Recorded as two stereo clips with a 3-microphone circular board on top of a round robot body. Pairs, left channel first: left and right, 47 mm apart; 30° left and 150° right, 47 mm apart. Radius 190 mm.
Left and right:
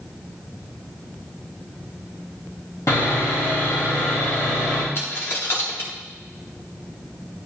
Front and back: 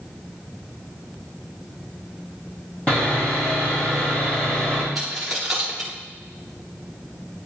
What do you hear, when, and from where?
2.9 s sawing: 90° left, 3.5 m
5.0 s a dropped coin: 130° left, 0.8 m